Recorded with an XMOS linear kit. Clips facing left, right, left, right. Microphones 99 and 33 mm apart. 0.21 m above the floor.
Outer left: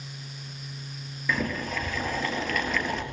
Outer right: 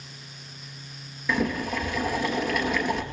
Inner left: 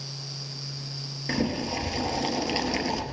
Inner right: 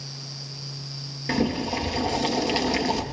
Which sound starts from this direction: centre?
Boiling, at 1.3 s.